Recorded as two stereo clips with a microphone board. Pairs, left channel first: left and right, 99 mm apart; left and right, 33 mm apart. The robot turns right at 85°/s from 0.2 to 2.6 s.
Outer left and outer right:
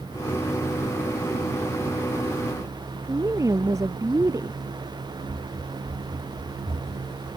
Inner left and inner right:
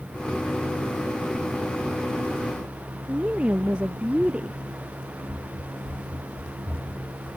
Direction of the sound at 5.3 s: 70° right (ahead or behind).